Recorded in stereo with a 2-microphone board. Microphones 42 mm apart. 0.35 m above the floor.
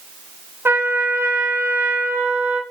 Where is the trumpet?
70° right (ahead or behind), 0.6 m.